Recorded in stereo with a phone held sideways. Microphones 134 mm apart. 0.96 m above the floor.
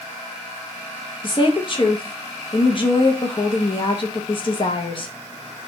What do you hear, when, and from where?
1.2 s a woman speaking: 40° left (ahead or behind), 0.9 m